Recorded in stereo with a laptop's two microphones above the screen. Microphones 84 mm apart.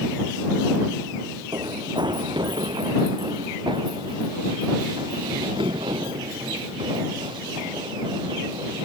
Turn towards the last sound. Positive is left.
turn(degrees=-75)  # may be behind; listen again after turning